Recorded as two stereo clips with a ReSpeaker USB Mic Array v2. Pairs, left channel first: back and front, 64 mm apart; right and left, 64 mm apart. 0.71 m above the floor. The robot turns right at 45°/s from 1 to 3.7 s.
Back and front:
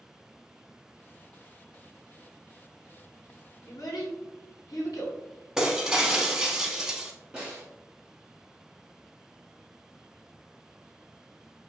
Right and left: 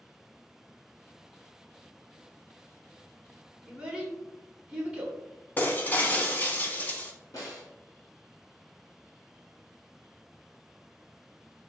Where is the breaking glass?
70° right, 0.6 m.